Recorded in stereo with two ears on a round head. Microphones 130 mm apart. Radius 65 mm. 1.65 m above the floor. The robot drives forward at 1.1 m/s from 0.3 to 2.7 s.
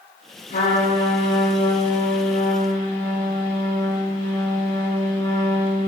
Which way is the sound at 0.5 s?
75° left (ahead or behind).